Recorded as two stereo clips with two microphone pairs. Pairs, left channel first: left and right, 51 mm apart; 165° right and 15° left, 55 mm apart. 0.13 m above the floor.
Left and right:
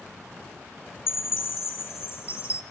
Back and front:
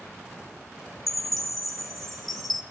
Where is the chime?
110° left, 1.2 m.